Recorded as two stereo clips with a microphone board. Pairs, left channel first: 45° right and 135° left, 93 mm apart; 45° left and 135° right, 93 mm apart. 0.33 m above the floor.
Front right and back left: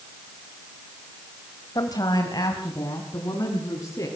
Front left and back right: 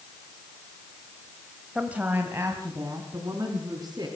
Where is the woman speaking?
60° right, 1.8 m; by 4.1 s 90° right, 5 m.